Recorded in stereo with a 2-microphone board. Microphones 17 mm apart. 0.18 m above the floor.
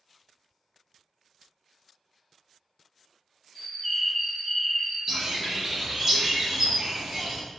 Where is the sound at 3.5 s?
10° left (ahead or behind), 1.2 m.